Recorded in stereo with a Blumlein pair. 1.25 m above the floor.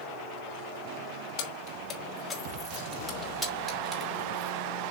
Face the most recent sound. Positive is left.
turn(degrees=-20)